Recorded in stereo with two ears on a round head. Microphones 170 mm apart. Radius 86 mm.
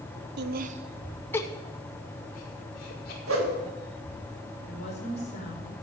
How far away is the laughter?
About 1.0 m.